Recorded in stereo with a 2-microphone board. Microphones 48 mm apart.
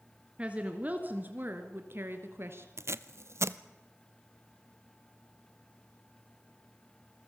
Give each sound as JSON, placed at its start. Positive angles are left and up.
{"t": 0.4, "sound": "a woman speaking", "side_deg": -25, "distance_m": 1.7}
{"t": 2.8, "sound": "tape being pulled", "side_deg": -65, "distance_m": 0.7}